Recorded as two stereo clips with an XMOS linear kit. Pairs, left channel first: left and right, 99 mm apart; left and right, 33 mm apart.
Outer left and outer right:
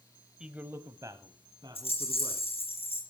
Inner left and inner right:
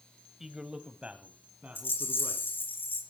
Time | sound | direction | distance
0.4 | a man speaking | 5° right (ahead or behind) | 0.9 m
1.8 | a rattle | 80° left | 5.5 m